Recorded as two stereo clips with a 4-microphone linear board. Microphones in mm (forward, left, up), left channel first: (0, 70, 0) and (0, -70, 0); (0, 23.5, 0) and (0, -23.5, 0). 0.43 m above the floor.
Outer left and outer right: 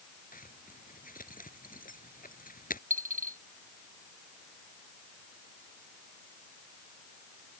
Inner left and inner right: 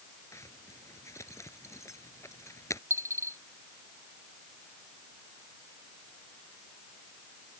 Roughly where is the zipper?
Left.